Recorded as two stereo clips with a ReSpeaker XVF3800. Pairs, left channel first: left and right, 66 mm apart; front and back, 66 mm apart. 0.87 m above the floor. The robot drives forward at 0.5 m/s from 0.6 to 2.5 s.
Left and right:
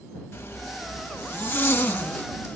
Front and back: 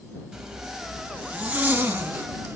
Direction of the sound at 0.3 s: 115° left.